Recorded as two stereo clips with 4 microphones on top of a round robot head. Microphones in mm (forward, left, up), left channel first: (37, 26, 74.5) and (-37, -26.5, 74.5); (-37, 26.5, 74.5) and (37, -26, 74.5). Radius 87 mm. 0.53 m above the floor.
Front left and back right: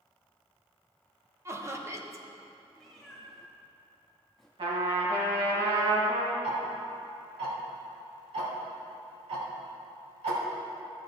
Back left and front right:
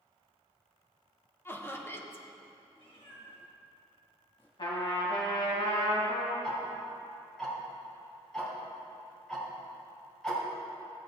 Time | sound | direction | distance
1.4 | laughter | 170° right | 1.3 m
2.8 | a cat meowing | 125° left | 2 m
4.6 | a trumpet | 175° right | 2 m
6.4 | ticking | 130° right | 2.5 m